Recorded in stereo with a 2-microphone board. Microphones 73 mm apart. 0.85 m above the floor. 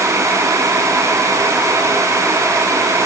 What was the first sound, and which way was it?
Only background noise.